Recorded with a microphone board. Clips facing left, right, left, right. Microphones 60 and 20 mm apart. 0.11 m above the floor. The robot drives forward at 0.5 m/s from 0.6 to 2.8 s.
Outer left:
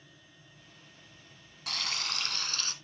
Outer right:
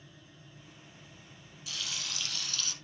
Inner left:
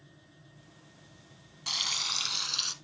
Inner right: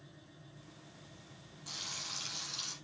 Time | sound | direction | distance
1.7 | frying | 55° left (ahead or behind) | 1.0 m